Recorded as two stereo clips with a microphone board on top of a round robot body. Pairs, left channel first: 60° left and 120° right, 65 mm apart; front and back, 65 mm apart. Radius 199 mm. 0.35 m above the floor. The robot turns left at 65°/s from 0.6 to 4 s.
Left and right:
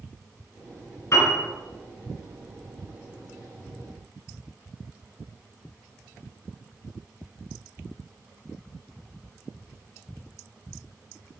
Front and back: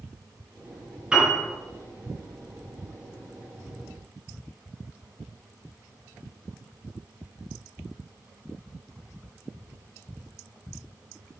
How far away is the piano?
About 3 m.